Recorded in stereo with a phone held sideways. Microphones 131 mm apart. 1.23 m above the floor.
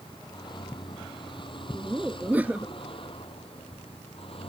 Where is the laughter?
15° right (ahead or behind).